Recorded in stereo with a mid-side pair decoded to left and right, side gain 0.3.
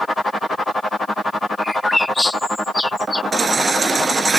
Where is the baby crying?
50° right.